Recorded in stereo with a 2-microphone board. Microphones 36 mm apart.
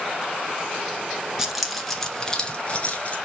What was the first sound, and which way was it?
Keys jangling, 10° right (ahead or behind).